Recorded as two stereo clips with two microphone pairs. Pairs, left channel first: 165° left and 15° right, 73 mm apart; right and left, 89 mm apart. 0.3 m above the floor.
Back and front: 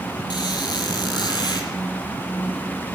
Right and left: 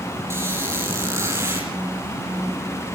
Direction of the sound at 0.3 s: 150° left.